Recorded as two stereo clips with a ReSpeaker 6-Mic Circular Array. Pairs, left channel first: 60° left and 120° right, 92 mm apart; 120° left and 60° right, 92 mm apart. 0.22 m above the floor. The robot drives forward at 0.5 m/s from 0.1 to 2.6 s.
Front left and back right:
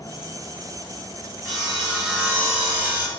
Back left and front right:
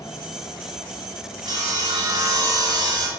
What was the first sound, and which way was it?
Sawing, 30° right.